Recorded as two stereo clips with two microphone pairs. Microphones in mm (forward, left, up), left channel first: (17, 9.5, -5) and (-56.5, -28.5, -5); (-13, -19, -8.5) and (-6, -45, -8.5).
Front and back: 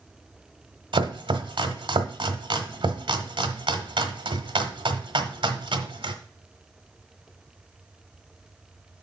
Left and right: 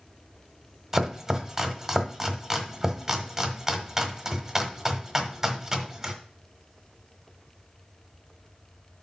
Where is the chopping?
145° right, 1.2 m.